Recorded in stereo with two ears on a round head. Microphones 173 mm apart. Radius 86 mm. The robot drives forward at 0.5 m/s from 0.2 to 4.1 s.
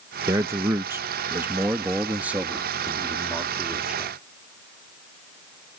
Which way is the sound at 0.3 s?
15° right (ahead or behind).